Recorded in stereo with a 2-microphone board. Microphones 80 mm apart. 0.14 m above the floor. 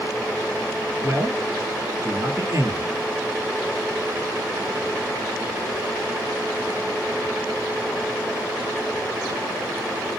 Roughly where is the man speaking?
Right.